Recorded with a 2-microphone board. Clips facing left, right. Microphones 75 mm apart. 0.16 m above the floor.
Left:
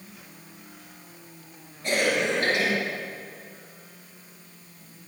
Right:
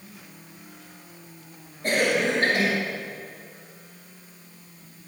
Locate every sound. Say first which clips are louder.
1.8 s a cough: right 2 dB; 40° right (ahead or behind), 3 m